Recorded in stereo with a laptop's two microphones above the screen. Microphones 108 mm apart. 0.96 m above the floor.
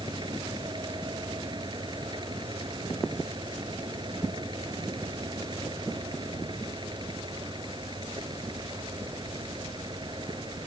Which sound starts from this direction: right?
A fan, at 0.0 s.